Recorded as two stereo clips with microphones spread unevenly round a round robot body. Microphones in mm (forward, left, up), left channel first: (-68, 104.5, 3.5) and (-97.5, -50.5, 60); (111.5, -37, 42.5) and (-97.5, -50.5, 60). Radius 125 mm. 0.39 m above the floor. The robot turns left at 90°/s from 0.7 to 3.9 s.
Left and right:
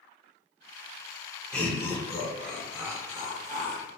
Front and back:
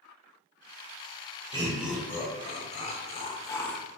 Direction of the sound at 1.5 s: 125° left.